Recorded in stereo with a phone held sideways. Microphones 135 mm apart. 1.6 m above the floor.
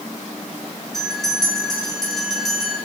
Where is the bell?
5° left (ahead or behind), 6 m.